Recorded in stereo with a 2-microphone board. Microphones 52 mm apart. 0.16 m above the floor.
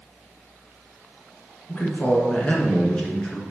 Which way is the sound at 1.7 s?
35° left (ahead or behind).